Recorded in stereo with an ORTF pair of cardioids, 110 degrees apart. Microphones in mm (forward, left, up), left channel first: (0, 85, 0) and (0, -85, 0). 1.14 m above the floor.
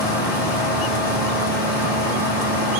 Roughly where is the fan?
Ahead left.